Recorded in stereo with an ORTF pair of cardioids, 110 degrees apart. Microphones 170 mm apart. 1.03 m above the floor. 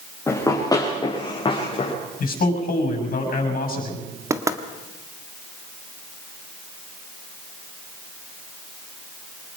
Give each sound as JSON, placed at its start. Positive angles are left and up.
{"t": 0.3, "sound": "running footsteps", "azimuth_deg": 15, "distance_m": 6.5}
{"t": 2.2, "sound": "a man speaking", "azimuth_deg": 55, "distance_m": 6.5}
{"t": 4.3, "sound": "knocking", "azimuth_deg": -20, "distance_m": 1.6}